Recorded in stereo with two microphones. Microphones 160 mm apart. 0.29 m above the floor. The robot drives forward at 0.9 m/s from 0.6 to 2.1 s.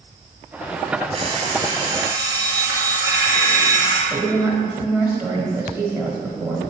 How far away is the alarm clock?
About 1.2 m.